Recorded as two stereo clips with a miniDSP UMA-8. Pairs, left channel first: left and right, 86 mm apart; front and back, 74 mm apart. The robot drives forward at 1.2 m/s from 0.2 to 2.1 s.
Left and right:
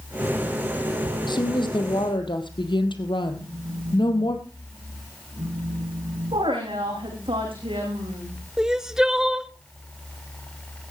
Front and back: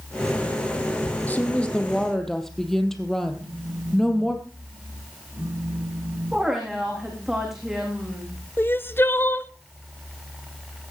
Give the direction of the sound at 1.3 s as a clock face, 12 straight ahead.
10 o'clock.